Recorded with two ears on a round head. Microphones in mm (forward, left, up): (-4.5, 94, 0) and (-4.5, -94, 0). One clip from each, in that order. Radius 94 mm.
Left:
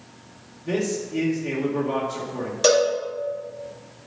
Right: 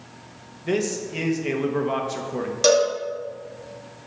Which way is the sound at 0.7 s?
55° right (ahead or behind).